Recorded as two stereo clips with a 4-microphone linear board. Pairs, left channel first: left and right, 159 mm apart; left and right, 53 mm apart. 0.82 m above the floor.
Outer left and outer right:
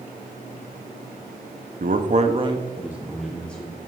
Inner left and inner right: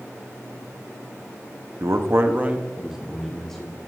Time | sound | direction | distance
1.8 | a man speaking | 65° right (ahead or behind) | 0.8 m